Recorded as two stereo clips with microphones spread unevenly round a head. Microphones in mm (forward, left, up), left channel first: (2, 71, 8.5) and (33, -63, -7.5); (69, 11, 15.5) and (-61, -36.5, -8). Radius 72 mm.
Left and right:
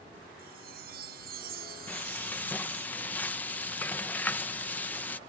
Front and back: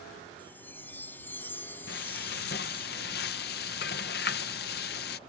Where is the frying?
20° left.